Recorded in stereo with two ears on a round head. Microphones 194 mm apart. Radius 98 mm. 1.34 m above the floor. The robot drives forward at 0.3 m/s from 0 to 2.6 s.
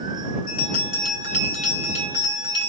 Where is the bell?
40° left (ahead or behind), 2 m; by 2.7 s 30° left (ahead or behind), 2.5 m.